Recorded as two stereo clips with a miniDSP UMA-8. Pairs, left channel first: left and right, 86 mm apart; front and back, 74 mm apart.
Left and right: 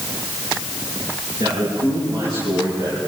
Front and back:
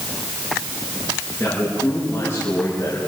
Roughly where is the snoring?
No snoring in this recording.